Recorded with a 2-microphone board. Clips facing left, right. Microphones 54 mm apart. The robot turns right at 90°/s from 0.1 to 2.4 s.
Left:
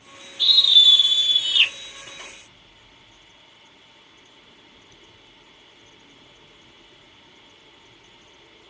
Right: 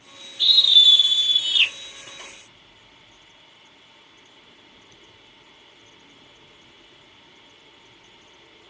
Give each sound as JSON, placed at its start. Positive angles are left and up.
{"t": 0.4, "sound": "a scream", "azimuth_deg": -30, "distance_m": 1.6}